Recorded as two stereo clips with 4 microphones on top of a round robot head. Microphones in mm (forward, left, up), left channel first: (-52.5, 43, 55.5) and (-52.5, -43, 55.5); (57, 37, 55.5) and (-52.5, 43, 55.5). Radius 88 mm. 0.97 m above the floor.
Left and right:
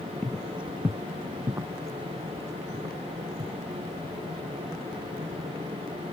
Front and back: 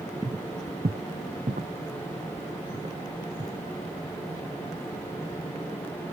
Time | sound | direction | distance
0.2 | footsteps | 170° left | ?